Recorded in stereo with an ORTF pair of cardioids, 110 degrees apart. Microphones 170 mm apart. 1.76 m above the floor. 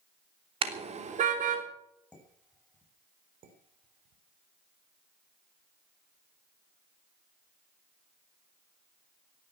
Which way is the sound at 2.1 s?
5° left.